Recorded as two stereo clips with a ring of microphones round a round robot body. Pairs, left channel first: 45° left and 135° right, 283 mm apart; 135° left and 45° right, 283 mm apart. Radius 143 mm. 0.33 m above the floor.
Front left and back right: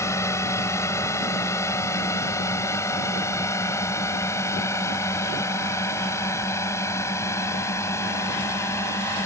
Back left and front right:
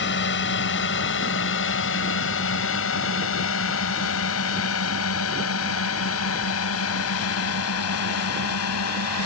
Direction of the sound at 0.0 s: 120° left.